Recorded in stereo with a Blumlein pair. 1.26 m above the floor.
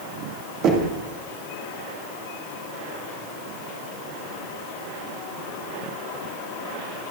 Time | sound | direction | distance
0.6 | knocking | 35° right | 2.5 m